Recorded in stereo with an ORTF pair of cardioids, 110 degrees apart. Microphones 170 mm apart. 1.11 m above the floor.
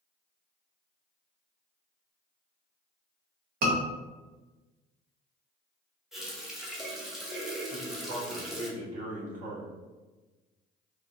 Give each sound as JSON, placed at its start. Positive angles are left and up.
{"t": 3.6, "sound": "a scream", "azimuth_deg": -65, "distance_m": 1.2}
{"t": 6.1, "sound": "a running tap", "azimuth_deg": 0, "distance_m": 0.7}
{"t": 7.7, "sound": "a man speaking", "azimuth_deg": -50, "distance_m": 1.6}